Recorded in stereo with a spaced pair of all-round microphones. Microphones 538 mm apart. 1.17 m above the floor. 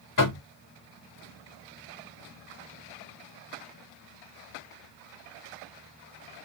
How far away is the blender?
I don't hear a blender.